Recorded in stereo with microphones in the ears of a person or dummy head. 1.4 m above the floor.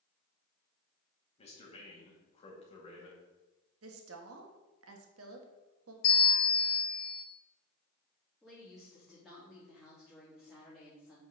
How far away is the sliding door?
I don't hear a sliding door.